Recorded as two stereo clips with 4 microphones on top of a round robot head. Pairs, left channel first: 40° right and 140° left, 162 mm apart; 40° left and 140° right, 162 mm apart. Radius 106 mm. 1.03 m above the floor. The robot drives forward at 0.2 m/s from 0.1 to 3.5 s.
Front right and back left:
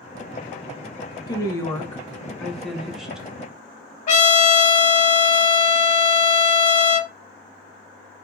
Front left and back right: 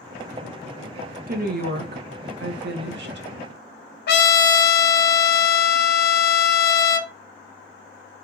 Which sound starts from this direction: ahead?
A trumpet, at 4.1 s.